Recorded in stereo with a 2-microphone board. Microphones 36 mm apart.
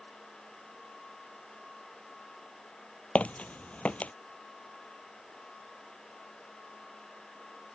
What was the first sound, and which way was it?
Footsteps, 40° left (ahead or behind).